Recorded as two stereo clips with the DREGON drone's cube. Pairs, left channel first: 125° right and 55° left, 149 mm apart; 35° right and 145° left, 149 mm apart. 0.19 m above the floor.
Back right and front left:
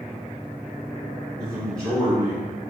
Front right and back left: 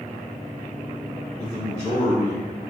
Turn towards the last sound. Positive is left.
turn(degrees=-40)